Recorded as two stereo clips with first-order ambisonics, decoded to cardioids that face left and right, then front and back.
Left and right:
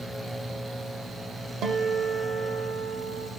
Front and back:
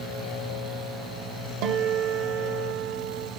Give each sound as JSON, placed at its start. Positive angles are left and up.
{"t": 1.6, "sound": "a guitar", "azimuth_deg": -145, "distance_m": 0.7}